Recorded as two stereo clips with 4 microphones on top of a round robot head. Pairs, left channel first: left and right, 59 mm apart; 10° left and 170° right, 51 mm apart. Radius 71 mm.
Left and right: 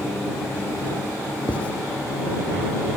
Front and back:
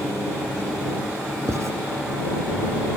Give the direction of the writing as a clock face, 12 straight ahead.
7 o'clock.